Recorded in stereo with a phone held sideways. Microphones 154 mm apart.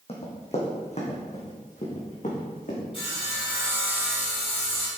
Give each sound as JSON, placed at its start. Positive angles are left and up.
{"t": 0.1, "sound": "running footsteps", "side_deg": 40, "distance_m": 3.0}
{"t": 2.9, "sound": "sawing", "side_deg": 40, "distance_m": 3.0}